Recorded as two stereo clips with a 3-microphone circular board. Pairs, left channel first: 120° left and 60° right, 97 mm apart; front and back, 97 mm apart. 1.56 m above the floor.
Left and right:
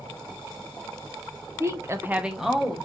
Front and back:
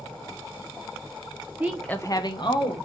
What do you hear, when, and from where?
1.6 s a woman speaking: 110° right, 0.6 m; by 2.8 s 30° left, 1.2 m